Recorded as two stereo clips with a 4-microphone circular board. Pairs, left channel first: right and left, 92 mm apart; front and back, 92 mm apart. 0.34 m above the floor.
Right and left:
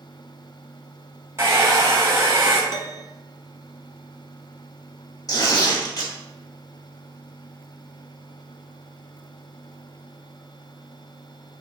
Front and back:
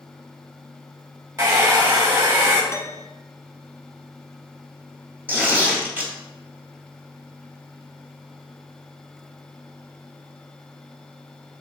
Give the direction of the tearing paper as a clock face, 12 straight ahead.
4 o'clock.